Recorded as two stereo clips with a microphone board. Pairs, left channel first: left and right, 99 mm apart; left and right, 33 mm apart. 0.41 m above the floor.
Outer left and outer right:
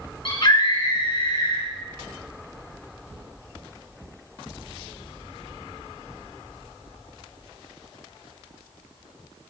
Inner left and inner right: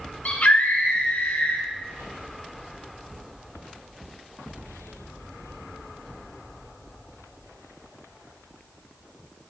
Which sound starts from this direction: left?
A scream, at 0.2 s.